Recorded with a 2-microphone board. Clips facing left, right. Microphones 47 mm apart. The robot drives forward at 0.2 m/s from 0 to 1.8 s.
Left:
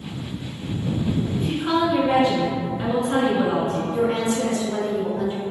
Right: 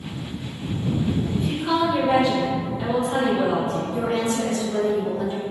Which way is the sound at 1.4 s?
25° left (ahead or behind).